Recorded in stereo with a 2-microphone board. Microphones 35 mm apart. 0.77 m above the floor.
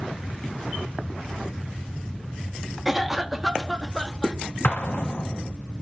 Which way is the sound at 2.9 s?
Centre (ahead or behind).